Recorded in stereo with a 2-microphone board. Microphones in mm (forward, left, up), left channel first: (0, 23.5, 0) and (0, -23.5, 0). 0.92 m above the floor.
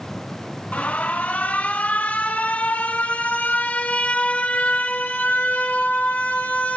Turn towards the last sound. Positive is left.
turn(degrees=30)  # may be behind; listen again after turning